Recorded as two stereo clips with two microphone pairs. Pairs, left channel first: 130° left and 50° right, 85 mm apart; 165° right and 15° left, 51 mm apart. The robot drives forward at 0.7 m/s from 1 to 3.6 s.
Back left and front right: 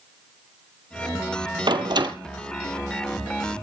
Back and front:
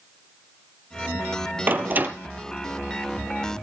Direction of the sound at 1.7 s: 30° right.